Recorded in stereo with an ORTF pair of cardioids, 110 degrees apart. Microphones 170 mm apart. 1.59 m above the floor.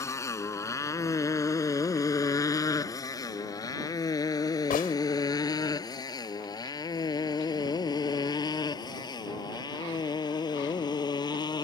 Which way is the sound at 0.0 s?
15° left.